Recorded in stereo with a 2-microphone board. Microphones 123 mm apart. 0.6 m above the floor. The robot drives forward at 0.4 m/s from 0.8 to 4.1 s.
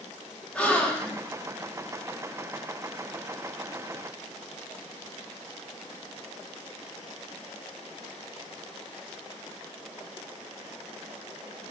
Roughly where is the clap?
I don't hear a clap.